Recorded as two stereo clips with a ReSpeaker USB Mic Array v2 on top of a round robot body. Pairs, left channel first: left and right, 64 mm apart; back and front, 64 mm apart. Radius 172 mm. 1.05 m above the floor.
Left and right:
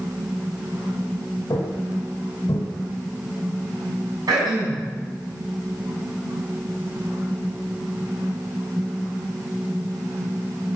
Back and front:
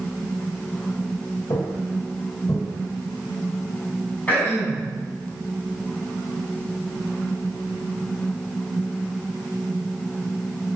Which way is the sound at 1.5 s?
135° left.